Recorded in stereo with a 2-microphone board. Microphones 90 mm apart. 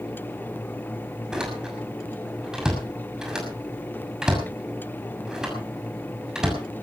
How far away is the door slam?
About 6.5 m.